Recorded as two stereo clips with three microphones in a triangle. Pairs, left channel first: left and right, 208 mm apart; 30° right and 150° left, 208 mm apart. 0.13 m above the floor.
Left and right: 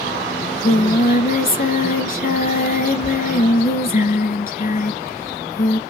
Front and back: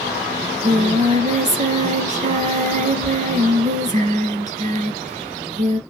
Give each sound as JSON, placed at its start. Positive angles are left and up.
{"t": 0.4, "sound": "singing", "azimuth_deg": 115, "distance_m": 0.9}